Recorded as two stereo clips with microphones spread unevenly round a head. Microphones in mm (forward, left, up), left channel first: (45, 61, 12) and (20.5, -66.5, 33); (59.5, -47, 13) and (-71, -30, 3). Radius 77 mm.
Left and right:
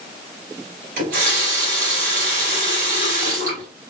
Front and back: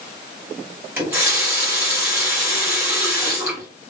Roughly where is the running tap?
Behind right.